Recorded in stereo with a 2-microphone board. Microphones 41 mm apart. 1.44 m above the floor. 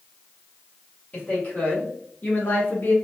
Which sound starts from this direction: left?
A woman speaking, at 1.1 s.